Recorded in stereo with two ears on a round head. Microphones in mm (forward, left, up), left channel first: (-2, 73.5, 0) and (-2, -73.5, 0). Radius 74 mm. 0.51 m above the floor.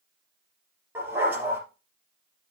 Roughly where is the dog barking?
Centre.